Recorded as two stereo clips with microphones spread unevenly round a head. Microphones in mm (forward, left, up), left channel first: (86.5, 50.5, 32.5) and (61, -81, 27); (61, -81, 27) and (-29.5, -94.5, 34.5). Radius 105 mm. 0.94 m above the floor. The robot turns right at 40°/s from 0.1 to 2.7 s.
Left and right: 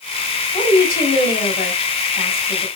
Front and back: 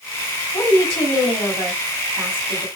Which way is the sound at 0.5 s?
60° left.